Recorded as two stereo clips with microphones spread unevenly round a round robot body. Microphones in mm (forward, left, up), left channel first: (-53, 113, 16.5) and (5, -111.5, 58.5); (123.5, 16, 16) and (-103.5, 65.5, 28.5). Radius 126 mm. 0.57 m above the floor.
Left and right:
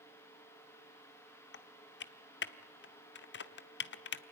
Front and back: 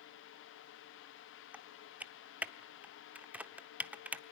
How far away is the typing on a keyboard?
About 1.1 m.